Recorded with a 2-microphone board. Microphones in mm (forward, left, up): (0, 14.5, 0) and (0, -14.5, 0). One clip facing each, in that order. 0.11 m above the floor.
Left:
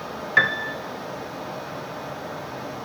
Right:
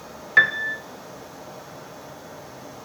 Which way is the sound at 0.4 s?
Centre (ahead or behind).